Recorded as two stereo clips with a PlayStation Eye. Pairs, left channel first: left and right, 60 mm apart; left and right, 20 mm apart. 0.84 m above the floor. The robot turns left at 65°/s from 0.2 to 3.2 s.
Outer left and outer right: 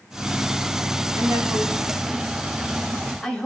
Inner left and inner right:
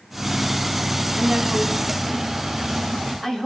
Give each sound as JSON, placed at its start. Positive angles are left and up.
{"t": 1.2, "sound": "a woman speaking", "side_deg": -50, "distance_m": 4.5}